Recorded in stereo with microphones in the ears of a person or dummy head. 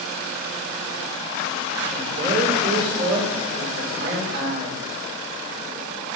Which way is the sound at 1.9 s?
60° right (ahead or behind).